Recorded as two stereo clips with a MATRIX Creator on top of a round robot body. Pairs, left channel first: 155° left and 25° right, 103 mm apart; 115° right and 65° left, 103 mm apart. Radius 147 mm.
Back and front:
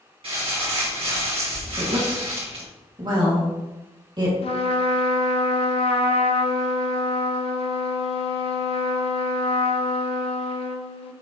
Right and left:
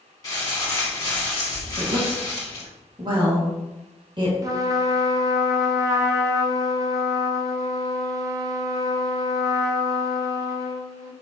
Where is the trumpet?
130° left, 0.9 m.